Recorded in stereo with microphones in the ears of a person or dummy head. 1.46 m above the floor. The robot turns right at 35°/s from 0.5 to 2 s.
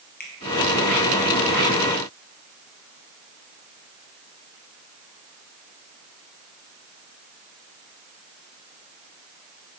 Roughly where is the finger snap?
Left.